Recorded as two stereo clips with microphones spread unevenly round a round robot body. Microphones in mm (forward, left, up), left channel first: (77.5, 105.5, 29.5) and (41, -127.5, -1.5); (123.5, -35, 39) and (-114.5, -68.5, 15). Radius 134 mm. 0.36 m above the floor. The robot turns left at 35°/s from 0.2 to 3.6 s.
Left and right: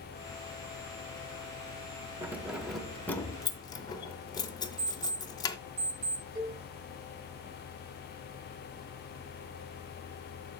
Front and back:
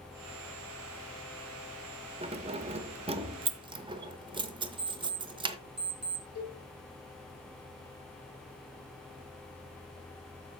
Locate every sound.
2.2 s keys jangling: 155° right, 0.7 m; by 5.6 s 155° left, 0.7 m
4.8 s an alarm clock: 125° right, 2.5 m
6.3 s a cowbell: 45° right, 3 m